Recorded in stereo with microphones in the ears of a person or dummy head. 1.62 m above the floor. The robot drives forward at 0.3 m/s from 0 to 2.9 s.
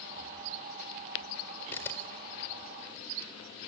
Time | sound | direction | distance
1.7 | a camera shutter | 10° left (ahead or behind) | 4 m